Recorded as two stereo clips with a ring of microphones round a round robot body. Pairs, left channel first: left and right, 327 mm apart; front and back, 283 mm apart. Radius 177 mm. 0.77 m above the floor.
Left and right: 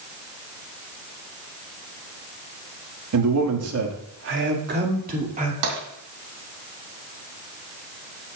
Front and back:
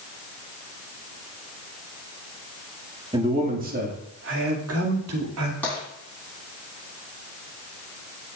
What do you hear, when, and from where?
3.1 s a man speaking: 110° right, 1.7 m; by 5.5 s 155° right, 2.5 m
5.6 s tapping: 85° right, 3 m